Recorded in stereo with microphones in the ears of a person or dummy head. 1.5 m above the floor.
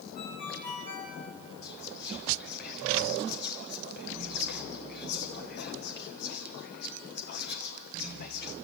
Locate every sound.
0.1 s a ringtone: 45° left (ahead or behind), 6 m
1.6 s whispering: 55° left (ahead or behind), 0.8 m